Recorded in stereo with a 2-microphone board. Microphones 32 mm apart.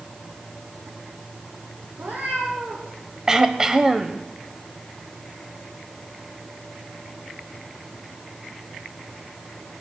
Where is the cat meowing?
65° right (ahead or behind), 5 m.